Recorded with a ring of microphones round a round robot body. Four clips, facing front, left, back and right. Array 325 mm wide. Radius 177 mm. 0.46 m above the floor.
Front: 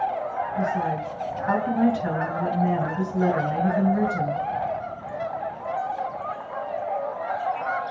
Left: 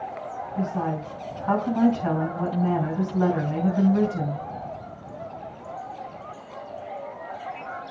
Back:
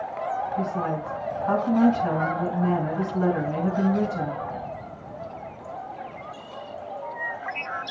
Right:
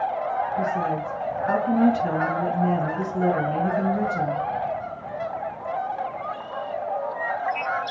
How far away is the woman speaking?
About 4 m.